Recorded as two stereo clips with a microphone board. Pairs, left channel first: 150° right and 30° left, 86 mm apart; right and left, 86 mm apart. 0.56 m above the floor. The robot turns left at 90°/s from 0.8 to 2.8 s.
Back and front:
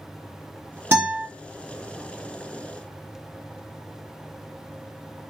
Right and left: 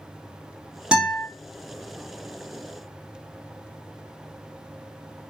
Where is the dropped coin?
No dropped coin in this recording.